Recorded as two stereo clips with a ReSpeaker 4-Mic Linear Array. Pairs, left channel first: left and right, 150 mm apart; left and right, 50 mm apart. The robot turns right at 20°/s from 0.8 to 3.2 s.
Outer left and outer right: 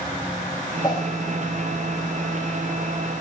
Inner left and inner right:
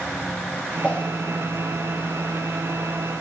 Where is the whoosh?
25° left (ahead or behind), 0.6 m; by 1.1 s 20° left (ahead or behind), 0.6 m.